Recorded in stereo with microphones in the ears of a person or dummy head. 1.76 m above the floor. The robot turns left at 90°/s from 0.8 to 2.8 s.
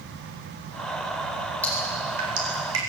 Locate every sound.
1.6 s dripping: 15° left (ahead or behind), 8.5 m; by 2.8 s 90° right, 8.5 m